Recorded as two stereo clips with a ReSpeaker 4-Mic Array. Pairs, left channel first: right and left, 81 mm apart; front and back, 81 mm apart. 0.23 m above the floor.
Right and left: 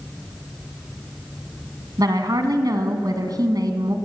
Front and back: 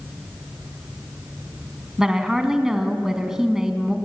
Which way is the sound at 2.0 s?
95° left.